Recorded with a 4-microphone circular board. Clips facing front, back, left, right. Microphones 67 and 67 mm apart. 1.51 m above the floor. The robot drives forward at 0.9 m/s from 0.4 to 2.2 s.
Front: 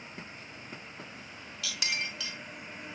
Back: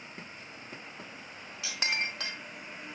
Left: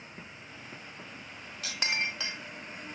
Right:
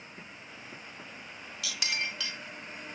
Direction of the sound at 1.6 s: 125° left.